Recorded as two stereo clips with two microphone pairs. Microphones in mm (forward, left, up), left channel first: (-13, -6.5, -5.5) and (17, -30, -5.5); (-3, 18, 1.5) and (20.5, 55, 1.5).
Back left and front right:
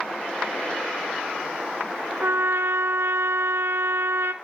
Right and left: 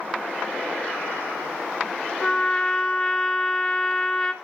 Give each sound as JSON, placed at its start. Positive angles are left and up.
{"t": 2.2, "sound": "a trumpet", "azimuth_deg": -45, "distance_m": 0.7}